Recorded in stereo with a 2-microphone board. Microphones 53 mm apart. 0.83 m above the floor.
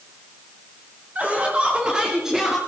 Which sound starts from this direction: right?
Laughter, at 1.1 s.